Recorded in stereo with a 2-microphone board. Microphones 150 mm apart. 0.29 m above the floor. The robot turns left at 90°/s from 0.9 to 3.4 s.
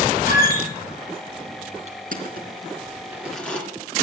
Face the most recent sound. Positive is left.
turn(degrees=5)  # may be behind; listen again after turning